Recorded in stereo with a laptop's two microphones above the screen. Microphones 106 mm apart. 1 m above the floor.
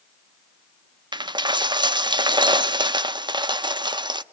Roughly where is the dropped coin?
Right.